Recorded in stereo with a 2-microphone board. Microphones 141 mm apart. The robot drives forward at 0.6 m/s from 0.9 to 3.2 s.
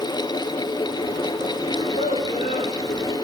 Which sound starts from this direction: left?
A child speaking, at 1.7 s.